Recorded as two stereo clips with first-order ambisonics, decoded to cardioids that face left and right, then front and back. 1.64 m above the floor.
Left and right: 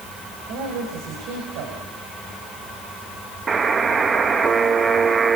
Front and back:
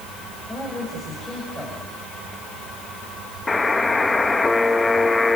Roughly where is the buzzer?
Ahead right.